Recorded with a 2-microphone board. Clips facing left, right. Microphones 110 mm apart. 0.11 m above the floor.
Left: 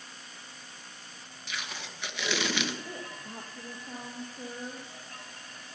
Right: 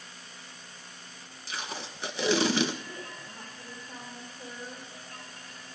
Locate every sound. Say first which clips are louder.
1.5 s tape being pulled: right 3 dB; 35° right (ahead or behind), 1.2 m
2.9 s a woman speaking: left 1 dB; 60° left (ahead or behind), 3.5 m